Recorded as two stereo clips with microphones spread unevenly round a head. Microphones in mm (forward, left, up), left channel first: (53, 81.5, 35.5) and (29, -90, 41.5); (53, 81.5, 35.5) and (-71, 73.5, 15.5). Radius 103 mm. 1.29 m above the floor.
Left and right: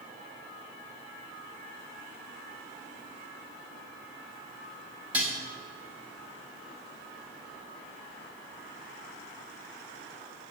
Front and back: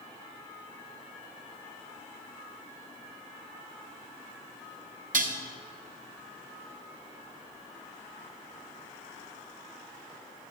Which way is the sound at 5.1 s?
Straight behind.